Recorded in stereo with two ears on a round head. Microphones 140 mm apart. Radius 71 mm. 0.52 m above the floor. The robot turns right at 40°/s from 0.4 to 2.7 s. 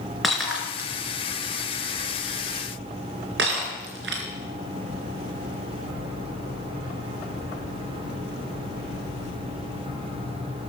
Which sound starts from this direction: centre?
Breaking glass, at 0.2 s.